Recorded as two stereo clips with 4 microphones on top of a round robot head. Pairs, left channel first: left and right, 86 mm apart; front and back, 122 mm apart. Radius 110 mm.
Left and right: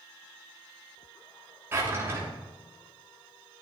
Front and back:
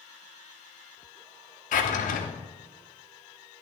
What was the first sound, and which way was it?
A drawer, 20° right.